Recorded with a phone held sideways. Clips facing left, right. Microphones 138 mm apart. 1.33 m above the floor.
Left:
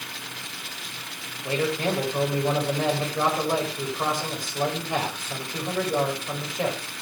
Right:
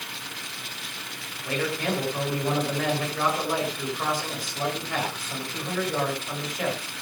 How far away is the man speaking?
About 7 m.